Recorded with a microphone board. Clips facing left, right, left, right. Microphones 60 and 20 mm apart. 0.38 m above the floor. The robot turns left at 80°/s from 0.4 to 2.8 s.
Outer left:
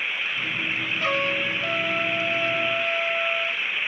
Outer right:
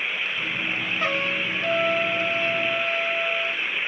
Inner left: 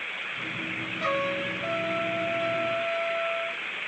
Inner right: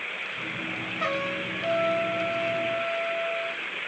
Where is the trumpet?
130° right, 2 m; by 3.6 s 85° left, 2 m.